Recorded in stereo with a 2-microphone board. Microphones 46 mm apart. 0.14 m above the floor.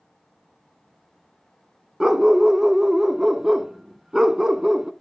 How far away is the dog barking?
About 0.5 m.